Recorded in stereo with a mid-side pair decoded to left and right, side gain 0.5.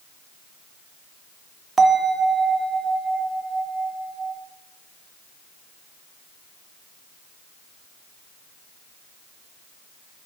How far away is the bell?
About 0.6 m.